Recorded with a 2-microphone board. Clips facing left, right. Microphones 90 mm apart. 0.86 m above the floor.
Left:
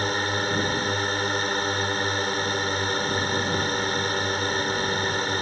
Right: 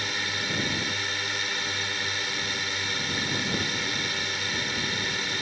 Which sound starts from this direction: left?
A drone, at 0.0 s.